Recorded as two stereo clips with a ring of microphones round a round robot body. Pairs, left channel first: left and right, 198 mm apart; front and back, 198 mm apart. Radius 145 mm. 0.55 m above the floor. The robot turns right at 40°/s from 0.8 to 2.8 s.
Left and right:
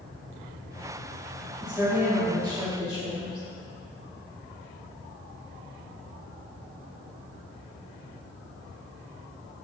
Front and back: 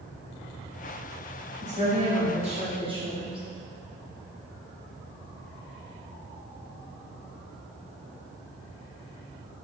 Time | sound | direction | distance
1.6 | a woman speaking | straight behind | 1.3 m